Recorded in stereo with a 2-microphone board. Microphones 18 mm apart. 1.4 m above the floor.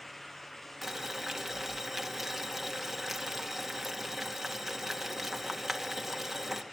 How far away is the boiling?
About 1.9 m.